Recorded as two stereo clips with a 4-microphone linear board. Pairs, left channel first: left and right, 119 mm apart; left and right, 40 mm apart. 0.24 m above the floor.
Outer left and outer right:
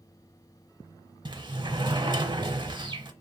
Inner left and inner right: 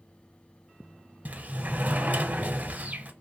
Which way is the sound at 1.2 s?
40° right (ahead or behind).